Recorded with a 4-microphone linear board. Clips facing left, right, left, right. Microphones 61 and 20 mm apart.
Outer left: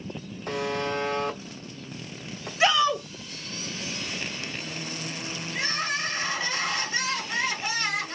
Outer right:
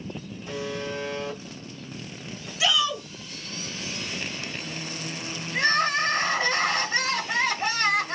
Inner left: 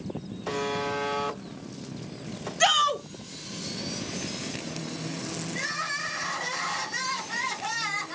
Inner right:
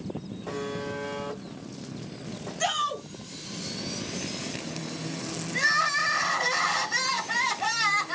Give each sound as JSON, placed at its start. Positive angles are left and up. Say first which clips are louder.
{"t": 0.5, "sound": "a buzzer", "louder": "outer left 4 dB, inner left 4 dB", "side_deg": 60, "distance_m": 0.9}
{"t": 2.6, "sound": "a shout", "louder": "outer left 4 dB, inner left 6 dB", "side_deg": 40, "distance_m": 0.9}
{"t": 5.5, "sound": "crying", "louder": "outer right 7 dB, inner right 8 dB", "side_deg": -50, "distance_m": 1.5}